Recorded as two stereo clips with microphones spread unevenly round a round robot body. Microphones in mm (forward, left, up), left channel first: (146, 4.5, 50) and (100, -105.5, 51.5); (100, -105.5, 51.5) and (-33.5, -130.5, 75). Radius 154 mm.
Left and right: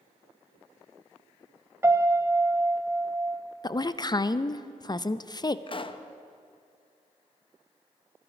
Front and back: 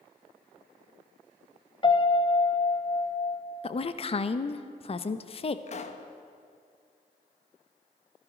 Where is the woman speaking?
20° left, 0.7 m.